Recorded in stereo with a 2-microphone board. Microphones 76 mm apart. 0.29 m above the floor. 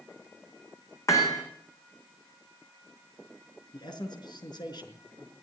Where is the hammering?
45° left (ahead or behind), 6 m.